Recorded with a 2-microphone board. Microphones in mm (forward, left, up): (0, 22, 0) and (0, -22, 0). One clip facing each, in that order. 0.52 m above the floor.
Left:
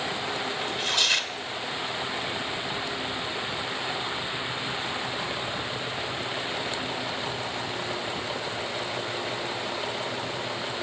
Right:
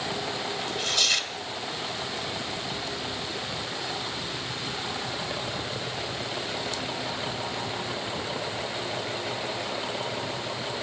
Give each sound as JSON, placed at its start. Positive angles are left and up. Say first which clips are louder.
{"t": 0.6, "sound": "tearing paper", "louder": "left 1 dB", "side_deg": 25, "distance_m": 1.7}